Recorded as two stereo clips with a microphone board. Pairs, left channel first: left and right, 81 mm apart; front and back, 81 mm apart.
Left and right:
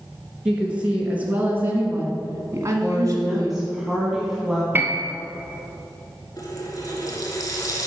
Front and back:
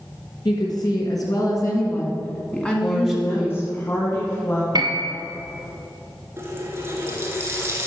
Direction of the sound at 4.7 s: 155° right.